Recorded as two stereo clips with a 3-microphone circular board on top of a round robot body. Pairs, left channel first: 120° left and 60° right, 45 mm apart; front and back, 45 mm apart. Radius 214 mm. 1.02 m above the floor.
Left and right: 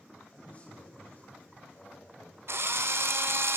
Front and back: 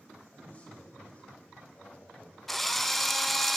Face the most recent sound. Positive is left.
turn(degrees=-85)